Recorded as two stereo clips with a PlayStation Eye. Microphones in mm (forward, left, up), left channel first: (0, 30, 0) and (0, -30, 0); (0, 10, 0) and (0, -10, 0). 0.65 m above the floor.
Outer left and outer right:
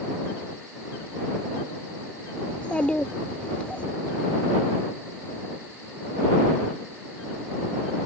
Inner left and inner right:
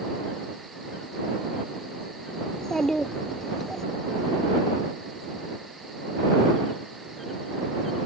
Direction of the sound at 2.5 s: 20° left (ahead or behind).